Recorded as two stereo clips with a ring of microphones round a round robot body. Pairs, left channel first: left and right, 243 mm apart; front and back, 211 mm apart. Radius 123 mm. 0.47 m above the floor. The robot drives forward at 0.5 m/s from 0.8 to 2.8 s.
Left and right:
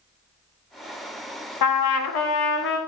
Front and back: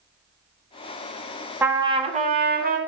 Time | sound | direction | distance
1.6 | a trumpet | 100° left | 0.6 m